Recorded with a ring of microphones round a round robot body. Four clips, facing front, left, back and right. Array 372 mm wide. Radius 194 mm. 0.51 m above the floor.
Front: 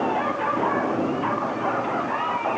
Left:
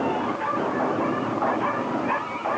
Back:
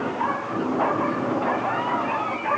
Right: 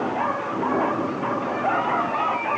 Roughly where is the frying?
No frying in this recording.